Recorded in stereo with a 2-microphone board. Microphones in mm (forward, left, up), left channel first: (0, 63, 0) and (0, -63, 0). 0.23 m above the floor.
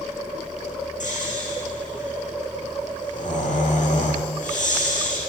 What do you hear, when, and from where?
1.0 s snoring: 70° left (ahead or behind), 10 m